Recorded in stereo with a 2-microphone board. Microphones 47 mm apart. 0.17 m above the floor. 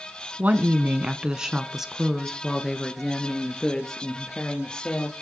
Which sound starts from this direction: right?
A woman speaking, at 0.4 s.